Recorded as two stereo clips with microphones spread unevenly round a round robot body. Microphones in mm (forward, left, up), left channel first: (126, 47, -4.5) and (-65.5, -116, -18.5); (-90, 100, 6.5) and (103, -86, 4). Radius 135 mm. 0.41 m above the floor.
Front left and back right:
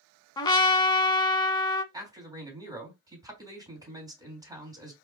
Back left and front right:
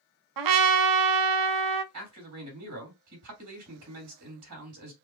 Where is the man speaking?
65° right, 3 m.